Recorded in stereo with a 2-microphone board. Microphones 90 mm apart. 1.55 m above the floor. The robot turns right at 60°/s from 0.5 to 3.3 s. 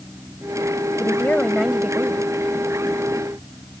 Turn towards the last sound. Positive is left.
turn(degrees=-80)